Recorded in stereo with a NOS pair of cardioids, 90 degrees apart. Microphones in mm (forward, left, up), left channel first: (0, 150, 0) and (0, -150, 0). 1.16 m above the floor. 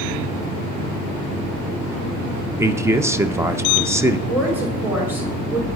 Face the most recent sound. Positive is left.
turn(degrees=-5)